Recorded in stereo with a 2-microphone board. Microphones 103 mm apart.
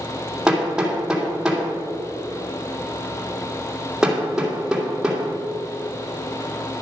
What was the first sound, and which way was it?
Hammering, 5° right (ahead or behind).